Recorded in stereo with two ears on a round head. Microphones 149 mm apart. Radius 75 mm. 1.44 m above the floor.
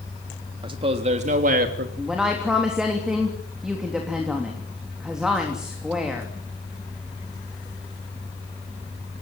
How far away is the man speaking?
About 3 m.